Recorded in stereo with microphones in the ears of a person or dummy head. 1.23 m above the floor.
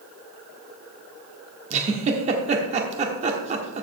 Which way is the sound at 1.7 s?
40° right (ahead or behind).